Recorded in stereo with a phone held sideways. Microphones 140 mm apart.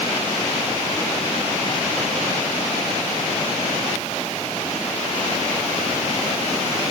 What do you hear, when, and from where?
Only background noise.